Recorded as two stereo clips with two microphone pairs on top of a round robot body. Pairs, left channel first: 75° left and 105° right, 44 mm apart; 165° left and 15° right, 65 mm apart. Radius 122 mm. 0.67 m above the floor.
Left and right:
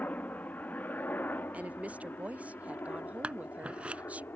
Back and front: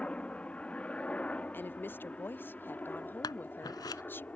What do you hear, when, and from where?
0.0 s a helicopter: 100° left
1.5 s a woman speaking: 140° right
3.2 s scissors: 170° right